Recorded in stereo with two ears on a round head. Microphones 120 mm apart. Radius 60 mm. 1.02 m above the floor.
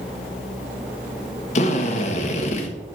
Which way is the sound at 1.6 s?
50° left (ahead or behind).